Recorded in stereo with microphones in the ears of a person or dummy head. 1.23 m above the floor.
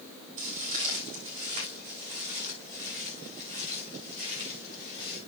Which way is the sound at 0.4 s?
35° right (ahead or behind).